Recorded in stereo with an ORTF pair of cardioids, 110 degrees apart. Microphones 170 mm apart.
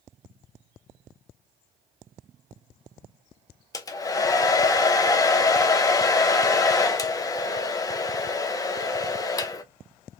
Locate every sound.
3.7 s a hair dryer: 20° left, 0.6 m